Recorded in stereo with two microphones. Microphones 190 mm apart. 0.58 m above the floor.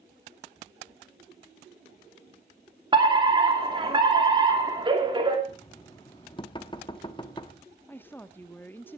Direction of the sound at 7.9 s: 10° left (ahead or behind).